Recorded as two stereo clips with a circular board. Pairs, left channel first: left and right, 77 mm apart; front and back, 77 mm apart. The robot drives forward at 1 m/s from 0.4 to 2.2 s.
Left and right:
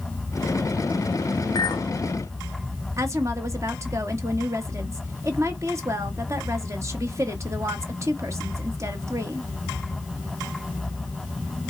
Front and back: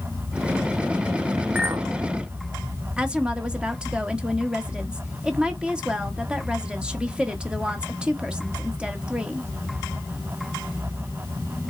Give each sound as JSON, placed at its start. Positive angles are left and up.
{"t": 1.6, "sound": "a clink", "azimuth_deg": 115, "distance_m": 0.7}
{"t": 3.0, "sound": "a woman speaking", "azimuth_deg": -110, "distance_m": 1.1}